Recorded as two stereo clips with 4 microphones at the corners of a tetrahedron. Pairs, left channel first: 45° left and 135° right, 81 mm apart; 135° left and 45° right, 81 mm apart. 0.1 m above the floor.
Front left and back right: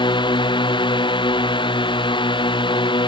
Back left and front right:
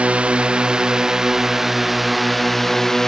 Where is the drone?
30° left; by 3.1 s 50° left.